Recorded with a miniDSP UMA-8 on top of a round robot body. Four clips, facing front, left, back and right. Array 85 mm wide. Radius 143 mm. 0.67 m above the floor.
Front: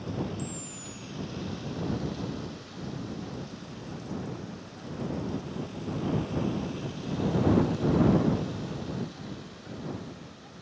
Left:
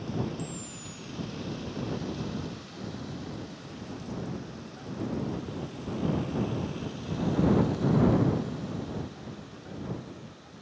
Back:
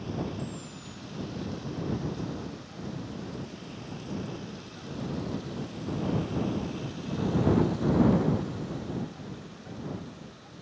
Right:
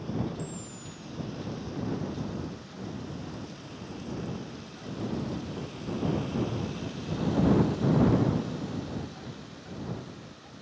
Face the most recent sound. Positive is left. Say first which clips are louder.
# even, even
turn(degrees=80)